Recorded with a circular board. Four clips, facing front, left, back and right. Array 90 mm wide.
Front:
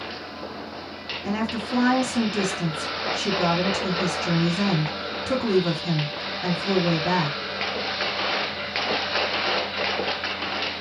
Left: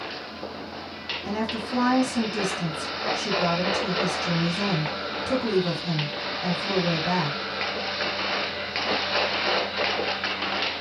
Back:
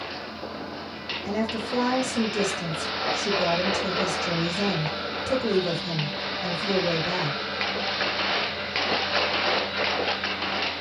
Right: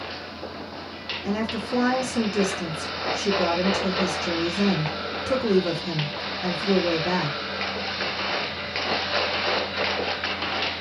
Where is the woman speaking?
5° right, 1.6 m.